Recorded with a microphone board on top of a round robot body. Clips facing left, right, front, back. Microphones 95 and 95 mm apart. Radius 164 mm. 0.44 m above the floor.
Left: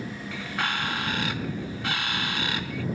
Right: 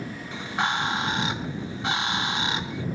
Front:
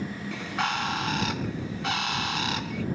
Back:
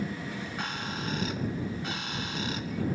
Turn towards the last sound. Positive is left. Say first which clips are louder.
# right 4 dB, front 6 dB
turn(degrees=-20)